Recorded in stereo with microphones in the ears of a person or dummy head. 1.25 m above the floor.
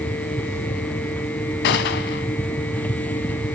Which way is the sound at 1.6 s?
45° left (ahead or behind).